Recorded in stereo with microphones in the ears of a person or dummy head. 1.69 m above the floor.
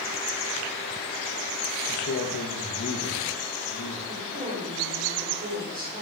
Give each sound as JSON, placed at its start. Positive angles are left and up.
{"t": 1.9, "sound": "a man speaking", "side_deg": 65, "distance_m": 1.5}
{"t": 4.1, "sound": "a woman speaking", "side_deg": -40, "distance_m": 4.5}